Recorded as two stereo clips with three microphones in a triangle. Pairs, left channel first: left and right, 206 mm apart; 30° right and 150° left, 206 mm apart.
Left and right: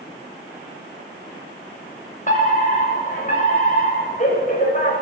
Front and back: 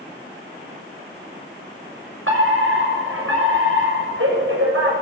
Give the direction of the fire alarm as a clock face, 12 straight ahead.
7 o'clock.